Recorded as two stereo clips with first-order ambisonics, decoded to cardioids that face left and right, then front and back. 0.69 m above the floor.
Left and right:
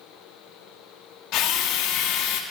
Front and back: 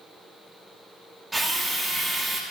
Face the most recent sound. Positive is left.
turn(degrees=100)